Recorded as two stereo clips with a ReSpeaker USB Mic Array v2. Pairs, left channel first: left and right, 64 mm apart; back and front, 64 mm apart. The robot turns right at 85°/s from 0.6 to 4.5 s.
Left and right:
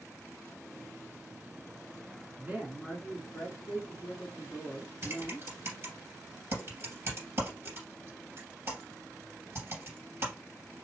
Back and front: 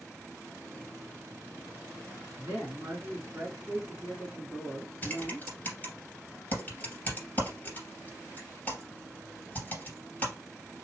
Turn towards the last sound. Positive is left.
turn(degrees=-125)